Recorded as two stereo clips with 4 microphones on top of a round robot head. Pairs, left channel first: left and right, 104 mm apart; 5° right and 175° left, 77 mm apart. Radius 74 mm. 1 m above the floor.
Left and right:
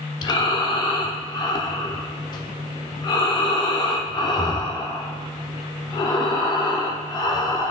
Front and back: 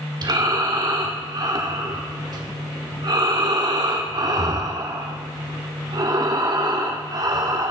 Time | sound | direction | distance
0.2 | breathing | 140° left | 1.4 m